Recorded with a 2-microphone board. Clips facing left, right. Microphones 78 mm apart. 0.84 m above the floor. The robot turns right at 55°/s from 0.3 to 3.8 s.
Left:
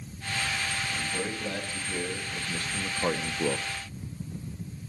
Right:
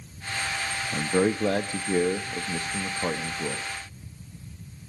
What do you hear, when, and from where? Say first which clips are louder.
0.9 s a man speaking: right 9 dB; 115° right, 0.7 m; by 3.7 s 35° left, 0.7 m